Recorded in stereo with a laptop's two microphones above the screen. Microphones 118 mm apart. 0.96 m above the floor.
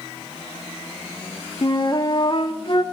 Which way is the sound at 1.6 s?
40° left (ahead or behind).